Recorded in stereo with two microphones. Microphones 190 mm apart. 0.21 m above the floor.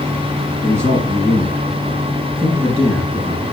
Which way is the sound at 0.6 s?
10° right (ahead or behind).